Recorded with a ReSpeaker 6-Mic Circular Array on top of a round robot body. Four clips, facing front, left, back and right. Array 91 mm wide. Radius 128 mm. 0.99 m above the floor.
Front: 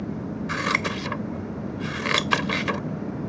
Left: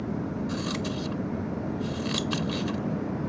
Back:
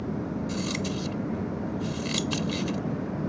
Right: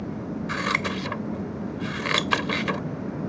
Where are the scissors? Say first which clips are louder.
Right 3 dB, front 4 dB; 35° right.